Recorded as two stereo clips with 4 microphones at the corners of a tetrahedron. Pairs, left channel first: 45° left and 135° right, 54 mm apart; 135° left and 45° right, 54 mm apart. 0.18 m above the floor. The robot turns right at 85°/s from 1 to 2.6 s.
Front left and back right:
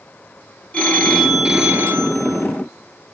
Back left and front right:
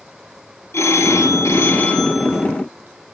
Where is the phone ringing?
105° left, 2.5 m; by 2.5 s 130° right, 2.5 m.